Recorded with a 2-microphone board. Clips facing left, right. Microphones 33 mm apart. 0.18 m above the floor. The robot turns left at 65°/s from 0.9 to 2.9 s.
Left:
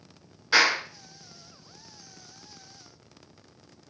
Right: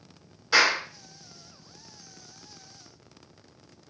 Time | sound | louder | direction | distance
0.5 | a clap | even | 10° left (ahead or behind) | 1.9 m